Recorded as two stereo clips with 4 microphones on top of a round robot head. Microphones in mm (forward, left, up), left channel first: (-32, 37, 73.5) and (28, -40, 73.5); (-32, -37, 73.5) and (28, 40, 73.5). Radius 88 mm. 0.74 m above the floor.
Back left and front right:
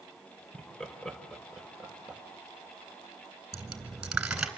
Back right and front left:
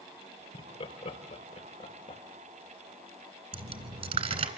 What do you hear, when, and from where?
0.5 s laughter: 155° right, 3.5 m; by 2.2 s 135° right, 4.5 m
3.5 s a dropped coin: 30° left, 3.5 m